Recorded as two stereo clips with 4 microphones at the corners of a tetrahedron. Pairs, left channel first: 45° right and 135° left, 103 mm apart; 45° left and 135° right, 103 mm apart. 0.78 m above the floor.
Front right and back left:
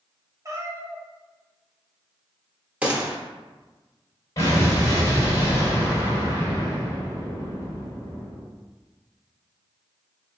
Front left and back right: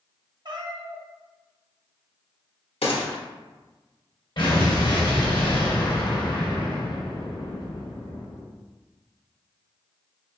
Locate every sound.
0.5 s a cat meowing: 170° right, 0.7 m
2.8 s a gunshot: 60° left, 1.0 m
4.4 s an explosion: 10° left, 2 m